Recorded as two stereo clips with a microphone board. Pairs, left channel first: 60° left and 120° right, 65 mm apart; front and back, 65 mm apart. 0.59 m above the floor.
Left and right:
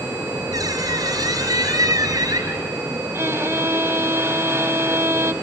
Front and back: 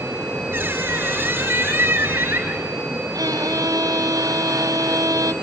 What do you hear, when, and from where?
0.5 s a squeak: 120° right, 4.5 m
3.1 s a violin: 165° right, 1.8 m